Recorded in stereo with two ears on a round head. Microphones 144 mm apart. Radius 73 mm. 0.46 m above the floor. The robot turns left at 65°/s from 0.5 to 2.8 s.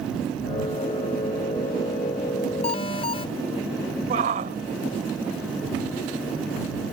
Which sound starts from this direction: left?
An alarm, at 2.6 s.